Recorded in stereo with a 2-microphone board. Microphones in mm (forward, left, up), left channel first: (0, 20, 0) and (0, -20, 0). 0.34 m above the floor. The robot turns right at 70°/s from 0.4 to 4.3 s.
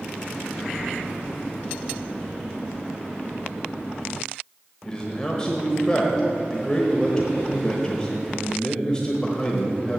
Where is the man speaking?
20° left (ahead or behind), 1.1 m.